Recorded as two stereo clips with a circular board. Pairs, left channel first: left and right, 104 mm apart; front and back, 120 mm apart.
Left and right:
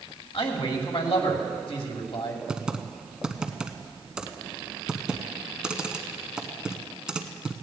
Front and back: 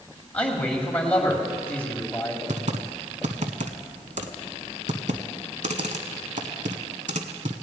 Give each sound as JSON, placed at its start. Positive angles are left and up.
{"t": 0.3, "sound": "a man speaking", "azimuth_deg": 80, "distance_m": 2.5}
{"t": 2.5, "sound": "typing on a keyboard", "azimuth_deg": -170, "distance_m": 0.9}